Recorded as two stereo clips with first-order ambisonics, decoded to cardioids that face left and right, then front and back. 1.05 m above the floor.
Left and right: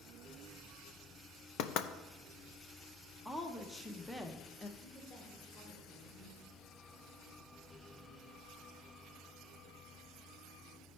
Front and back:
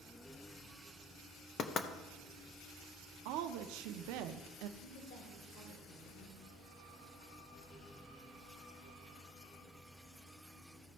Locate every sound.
1.6 s knocking: 60° left, 0.6 m
3.2 s a woman speaking: straight behind, 0.6 m
4.8 s a woman speaking: 15° left, 3 m